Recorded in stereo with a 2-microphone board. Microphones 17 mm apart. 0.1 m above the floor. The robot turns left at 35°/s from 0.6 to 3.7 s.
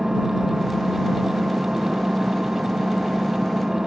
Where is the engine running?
25° right; by 3.9 s 135° right.